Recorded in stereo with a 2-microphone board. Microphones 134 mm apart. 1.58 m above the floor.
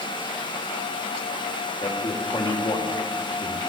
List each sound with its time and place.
1.8 s a man speaking: 35° left (ahead or behind), 2 m